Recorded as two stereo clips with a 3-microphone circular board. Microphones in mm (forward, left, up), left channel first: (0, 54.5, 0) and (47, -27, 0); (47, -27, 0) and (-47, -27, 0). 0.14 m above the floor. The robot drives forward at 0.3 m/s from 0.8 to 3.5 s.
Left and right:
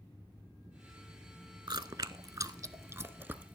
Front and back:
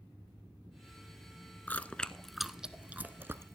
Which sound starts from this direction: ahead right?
Chewing, at 1.7 s.